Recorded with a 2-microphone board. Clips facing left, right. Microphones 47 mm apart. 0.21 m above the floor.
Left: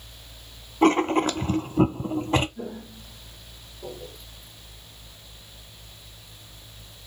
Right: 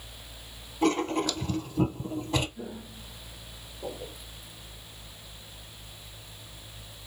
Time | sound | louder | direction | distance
0.8 | writing | left 6 dB | 40° left (ahead or behind) | 0.6 m
2.6 | footsteps | left 4 dB | 25° left (ahead or behind) | 1.3 m